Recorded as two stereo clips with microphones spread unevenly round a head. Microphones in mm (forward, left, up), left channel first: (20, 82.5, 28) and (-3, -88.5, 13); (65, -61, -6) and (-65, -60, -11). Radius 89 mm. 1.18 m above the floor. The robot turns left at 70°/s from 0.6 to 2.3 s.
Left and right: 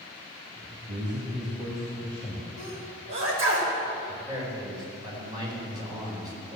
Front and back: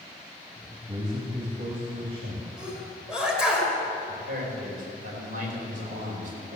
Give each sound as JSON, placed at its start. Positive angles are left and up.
{"t": 0.9, "sound": "a man speaking", "azimuth_deg": -110, "distance_m": 2.0}
{"t": 2.6, "sound": "a sneeze", "azimuth_deg": -95, "distance_m": 5.0}
{"t": 4.1, "sound": "a man speaking", "azimuth_deg": -165, "distance_m": 4.5}